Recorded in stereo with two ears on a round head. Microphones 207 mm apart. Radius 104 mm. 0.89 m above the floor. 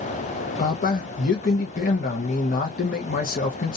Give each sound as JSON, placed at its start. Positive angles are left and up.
{"t": 0.6, "sound": "a man speaking", "side_deg": 35, "distance_m": 0.6}